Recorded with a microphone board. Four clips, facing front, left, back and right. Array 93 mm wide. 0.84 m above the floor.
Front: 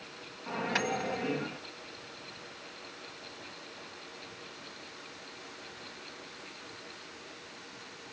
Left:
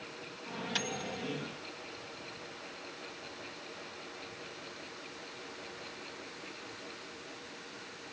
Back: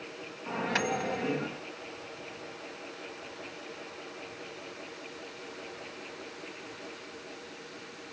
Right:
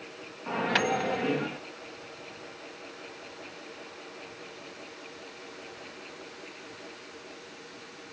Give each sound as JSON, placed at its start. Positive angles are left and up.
{"t": 0.5, "sound": "a microwave", "azimuth_deg": -90}